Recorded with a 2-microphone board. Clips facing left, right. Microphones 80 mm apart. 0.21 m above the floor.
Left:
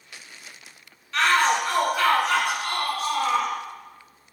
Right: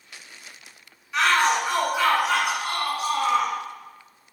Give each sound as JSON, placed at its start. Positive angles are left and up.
{"t": 1.1, "sound": "a shout", "side_deg": -10, "distance_m": 1.9}